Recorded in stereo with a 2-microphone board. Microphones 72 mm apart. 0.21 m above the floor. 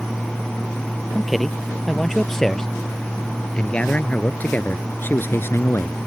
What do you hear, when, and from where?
1.1 s a man speaking: centre (ahead or behind); by 6.1 s 45° left (ahead or behind)